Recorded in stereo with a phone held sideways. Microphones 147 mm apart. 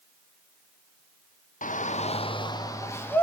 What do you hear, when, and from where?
1.6 s a shout: 65° left (ahead or behind), 1.1 m; by 3.2 s 15° left (ahead or behind), 2 m